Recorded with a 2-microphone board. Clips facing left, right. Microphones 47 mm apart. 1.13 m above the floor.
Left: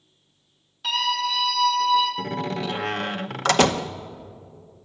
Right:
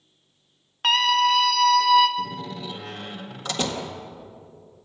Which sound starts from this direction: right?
A scream, at 0.8 s.